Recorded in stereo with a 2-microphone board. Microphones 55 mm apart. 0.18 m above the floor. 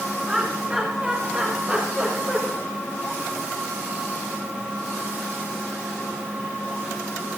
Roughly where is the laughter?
Right.